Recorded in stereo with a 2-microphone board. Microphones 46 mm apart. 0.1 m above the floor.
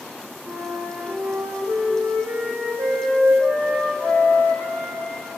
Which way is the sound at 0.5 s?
55° right (ahead or behind).